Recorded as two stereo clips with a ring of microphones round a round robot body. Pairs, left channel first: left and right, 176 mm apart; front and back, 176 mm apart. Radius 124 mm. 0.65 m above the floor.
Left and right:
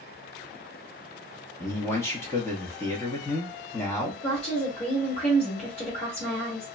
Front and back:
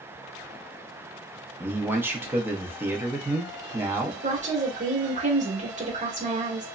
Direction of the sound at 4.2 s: 145° left.